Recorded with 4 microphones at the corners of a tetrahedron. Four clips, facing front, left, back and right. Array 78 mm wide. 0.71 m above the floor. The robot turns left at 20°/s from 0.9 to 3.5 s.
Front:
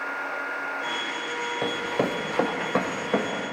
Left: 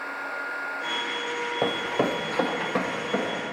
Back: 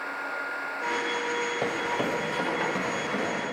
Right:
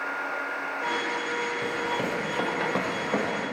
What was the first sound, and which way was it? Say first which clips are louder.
Running footsteps: left 3 dB, front 1 dB; 90° left.